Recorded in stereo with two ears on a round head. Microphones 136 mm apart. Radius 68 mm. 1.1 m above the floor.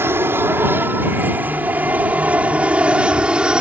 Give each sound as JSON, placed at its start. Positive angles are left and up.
{"t": 0.0, "sound": "an aircraft", "side_deg": -15}